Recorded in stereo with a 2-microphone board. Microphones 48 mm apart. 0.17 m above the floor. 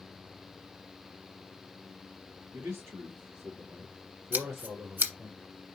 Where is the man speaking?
60° right (ahead or behind), 3.5 m; by 5.3 s 50° right (ahead or behind), 3.5 m.